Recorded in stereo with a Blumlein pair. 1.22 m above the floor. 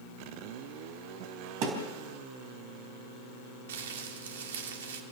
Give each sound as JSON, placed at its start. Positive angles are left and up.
{"t": 1.6, "sound": "a thud", "azimuth_deg": -40, "distance_m": 4.5}
{"t": 3.7, "sound": "crumpling", "azimuth_deg": -60, "distance_m": 2.5}